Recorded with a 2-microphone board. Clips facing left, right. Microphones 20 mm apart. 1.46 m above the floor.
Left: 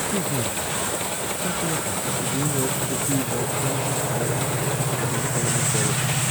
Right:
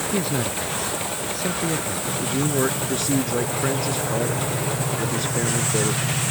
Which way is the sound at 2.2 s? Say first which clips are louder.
Right 5 dB; 70° right (ahead or behind).